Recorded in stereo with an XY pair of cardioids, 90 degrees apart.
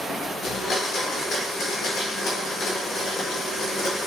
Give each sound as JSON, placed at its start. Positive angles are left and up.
{"t": 0.4, "sound": "a blender", "azimuth_deg": 70, "distance_m": 0.7}